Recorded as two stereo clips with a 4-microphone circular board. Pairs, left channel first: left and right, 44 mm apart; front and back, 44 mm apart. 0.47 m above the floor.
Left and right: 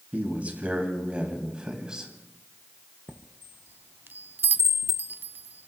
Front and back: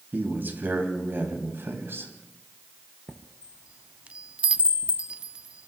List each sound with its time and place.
0.1 s a man speaking: 140° right, 3.5 m; by 2.1 s 165° right, 3.5 m
3.1 s a chime: 120° right, 0.6 m